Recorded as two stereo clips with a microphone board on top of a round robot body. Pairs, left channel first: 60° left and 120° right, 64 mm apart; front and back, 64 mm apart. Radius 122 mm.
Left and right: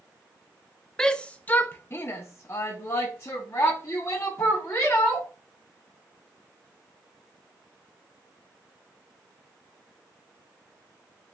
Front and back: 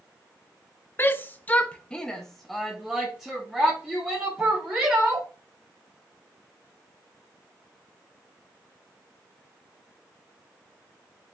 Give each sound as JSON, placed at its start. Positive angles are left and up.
{"t": 1.0, "sound": "a shout", "azimuth_deg": -15, "distance_m": 0.7}